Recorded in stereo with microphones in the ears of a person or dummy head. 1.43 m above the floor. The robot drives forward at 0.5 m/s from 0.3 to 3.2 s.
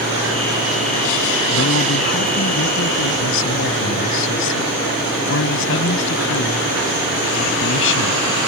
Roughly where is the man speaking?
Left.